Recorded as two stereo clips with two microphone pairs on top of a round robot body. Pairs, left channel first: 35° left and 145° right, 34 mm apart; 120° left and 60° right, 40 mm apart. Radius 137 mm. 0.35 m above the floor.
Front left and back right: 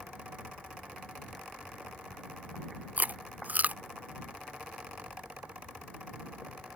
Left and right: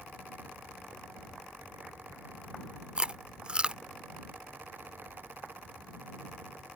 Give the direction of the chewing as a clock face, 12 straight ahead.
4 o'clock.